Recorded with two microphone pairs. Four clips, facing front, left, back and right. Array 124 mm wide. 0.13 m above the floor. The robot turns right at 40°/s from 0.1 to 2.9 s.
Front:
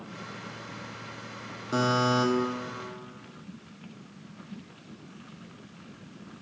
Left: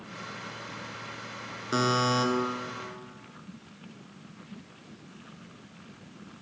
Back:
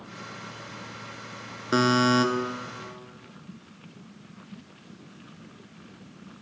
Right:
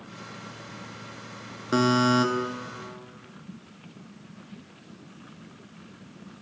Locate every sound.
1.7 s a buzzer: 170° left, 0.7 m; by 2.2 s 165° right, 0.7 m